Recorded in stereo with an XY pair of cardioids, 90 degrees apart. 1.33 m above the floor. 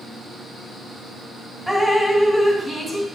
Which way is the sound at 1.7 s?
5° left.